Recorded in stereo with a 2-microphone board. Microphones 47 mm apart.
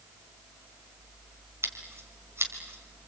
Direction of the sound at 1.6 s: 70° right (ahead or behind).